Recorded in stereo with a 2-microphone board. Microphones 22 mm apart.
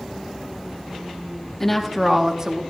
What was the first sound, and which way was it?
A woman speaking, 15° left (ahead or behind).